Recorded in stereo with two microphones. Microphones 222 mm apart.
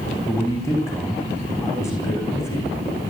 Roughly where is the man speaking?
Centre.